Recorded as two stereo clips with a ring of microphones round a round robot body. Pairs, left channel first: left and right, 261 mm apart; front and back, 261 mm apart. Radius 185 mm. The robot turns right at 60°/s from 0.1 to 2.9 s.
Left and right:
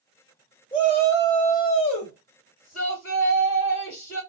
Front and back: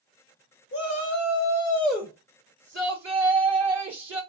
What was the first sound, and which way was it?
A shout, 15° left.